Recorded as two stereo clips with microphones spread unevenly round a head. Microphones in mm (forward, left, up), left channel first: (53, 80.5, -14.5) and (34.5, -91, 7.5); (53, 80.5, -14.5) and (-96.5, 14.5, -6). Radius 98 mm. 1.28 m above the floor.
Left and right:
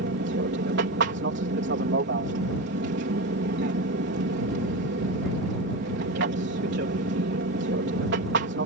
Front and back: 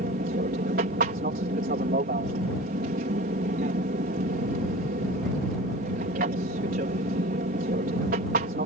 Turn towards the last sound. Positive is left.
turn(degrees=-115)